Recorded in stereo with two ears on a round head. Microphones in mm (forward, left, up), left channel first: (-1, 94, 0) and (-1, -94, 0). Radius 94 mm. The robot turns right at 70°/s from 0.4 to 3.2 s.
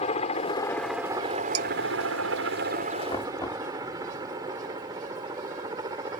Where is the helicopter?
30° left (ahead or behind); by 6.2 s 20° right (ahead or behind).